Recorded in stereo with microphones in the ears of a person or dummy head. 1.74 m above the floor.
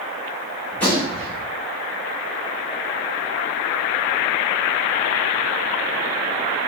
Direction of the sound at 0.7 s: 15° left (ahead or behind).